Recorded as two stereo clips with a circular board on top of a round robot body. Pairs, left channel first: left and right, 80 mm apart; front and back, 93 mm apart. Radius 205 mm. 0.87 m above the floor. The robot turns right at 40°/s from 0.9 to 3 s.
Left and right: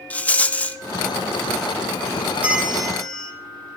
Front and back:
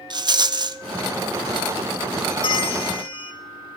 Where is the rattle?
160° left, 0.7 m.